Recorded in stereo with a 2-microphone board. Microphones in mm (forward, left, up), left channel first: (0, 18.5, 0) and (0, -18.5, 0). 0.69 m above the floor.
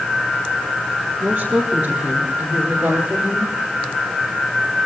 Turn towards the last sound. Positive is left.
turn(degrees=-85)